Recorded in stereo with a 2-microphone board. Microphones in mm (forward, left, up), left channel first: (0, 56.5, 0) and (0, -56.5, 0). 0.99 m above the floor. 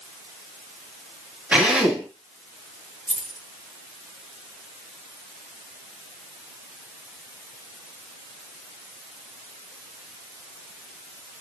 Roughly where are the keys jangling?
Right.